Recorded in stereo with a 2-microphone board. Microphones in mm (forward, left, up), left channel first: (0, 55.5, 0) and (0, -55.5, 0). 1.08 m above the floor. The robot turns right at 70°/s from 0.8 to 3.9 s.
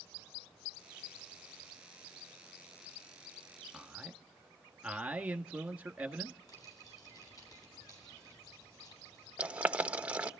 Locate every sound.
3.7 s a man speaking: centre (ahead or behind), 1.6 m; by 6.4 s 10° right (ahead or behind), 1.6 m
6.5 s crumpling: 35° left (ahead or behind), 9.5 m
9.4 s boiling: 15° right (ahead or behind), 1.2 m